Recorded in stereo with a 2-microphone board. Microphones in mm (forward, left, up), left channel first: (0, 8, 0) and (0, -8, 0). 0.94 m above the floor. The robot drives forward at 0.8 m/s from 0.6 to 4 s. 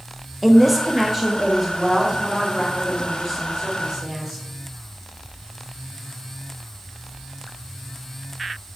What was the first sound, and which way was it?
A woman speaking, 5° left (ahead or behind).